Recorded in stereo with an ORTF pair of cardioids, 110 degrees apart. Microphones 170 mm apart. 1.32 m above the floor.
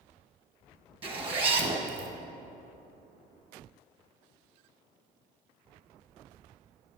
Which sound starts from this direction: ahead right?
A zipper, at 1.0 s.